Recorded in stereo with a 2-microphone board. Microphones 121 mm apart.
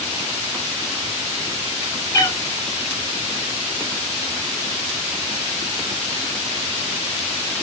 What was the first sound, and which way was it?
A cat meowing, 30° left (ahead or behind).